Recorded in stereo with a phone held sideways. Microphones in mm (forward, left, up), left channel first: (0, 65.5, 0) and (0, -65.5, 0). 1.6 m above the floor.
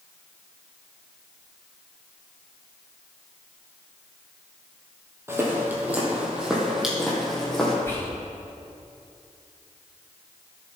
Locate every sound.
5.3 s footsteps: 20° right (ahead or behind), 3 m; by 7.8 s 5° left (ahead or behind), 3.5 m
7.8 s whispering: 20° left (ahead or behind), 3 m